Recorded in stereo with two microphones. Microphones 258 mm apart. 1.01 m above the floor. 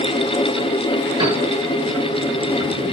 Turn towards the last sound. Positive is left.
turn(degrees=-15)  # may be behind; listen again after turning